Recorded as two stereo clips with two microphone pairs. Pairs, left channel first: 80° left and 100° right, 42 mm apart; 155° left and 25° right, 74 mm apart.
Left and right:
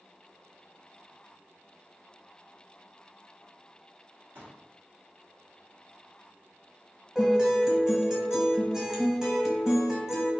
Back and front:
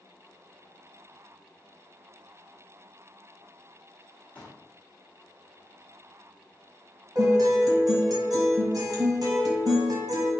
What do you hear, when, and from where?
4.3 s a pop: 130° right, 1.4 m
7.2 s a guitar: 25° right, 1.2 m